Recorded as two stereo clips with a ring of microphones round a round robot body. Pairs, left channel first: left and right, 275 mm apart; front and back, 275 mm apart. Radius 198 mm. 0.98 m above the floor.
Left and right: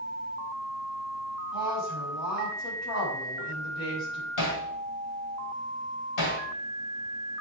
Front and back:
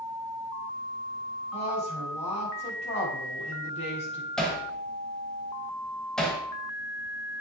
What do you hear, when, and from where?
1.5 s a woman speaking: 70° left, 5.5 m
4.4 s hammering: 90° left, 2.5 m